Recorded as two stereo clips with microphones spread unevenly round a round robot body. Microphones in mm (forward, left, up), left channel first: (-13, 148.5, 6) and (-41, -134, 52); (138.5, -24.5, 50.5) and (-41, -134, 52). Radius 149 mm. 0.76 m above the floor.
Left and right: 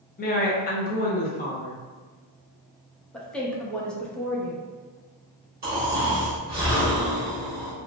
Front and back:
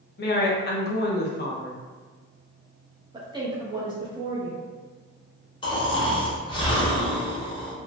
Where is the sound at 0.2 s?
45° left, 0.7 m.